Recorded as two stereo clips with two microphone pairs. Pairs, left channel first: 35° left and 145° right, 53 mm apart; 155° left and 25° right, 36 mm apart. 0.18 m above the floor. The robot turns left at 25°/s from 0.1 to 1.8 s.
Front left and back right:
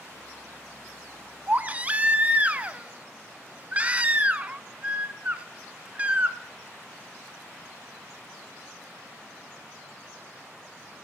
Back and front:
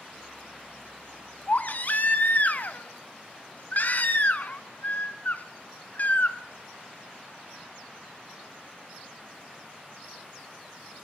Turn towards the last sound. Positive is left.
turn(degrees=155)